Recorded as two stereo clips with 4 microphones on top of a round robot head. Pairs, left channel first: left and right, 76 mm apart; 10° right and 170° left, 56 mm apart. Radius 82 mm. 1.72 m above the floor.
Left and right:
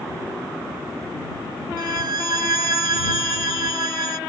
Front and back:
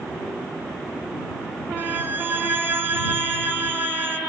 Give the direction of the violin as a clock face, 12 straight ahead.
4 o'clock.